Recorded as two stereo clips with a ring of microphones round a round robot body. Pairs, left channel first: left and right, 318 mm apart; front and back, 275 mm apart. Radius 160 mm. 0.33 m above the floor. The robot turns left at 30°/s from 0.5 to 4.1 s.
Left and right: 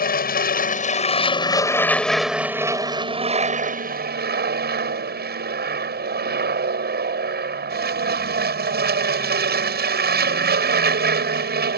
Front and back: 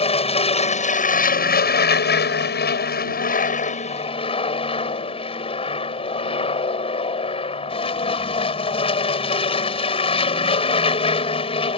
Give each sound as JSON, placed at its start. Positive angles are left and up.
{"t": 0.0, "sound": "an aircraft", "azimuth_deg": 50}